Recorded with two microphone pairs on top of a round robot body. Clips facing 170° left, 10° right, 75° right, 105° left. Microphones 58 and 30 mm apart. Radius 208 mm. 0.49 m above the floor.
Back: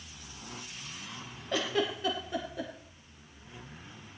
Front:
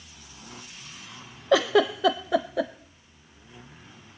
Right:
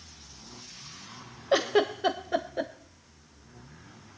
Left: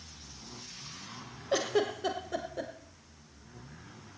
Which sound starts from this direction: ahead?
A giggle, at 1.5 s.